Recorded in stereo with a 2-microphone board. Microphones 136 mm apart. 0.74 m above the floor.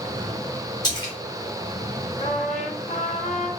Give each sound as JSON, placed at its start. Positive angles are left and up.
{"t": 0.8, "sound": "a splash", "side_deg": 35, "distance_m": 1.0}
{"t": 2.2, "sound": "a trumpet", "side_deg": 60, "distance_m": 0.6}